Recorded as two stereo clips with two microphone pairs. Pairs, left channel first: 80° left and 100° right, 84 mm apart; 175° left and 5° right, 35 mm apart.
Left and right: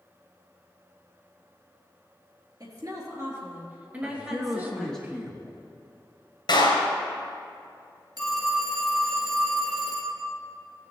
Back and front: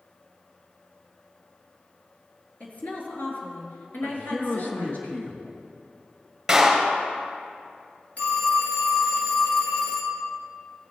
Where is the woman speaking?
135° right, 3 m; by 5.0 s 160° left, 3 m.